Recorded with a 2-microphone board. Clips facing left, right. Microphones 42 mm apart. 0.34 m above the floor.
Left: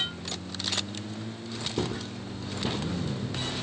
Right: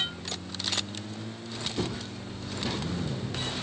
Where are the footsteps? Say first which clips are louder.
Left 3 dB; 60° left (ahead or behind), 1.1 m; by 3.0 s 15° left (ahead or behind), 0.8 m.